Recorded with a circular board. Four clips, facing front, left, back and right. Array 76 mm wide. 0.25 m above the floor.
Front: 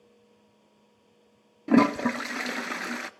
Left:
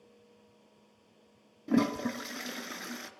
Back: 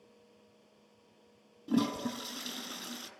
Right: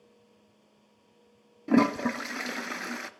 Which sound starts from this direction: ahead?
A toilet flushing, at 1.7 s.